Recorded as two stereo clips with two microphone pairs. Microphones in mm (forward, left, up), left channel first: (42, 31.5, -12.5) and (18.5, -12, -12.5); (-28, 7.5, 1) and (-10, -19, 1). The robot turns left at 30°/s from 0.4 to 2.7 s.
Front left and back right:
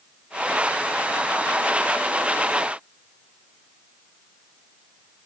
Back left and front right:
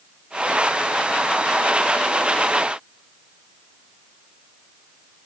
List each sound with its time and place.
Only background noise.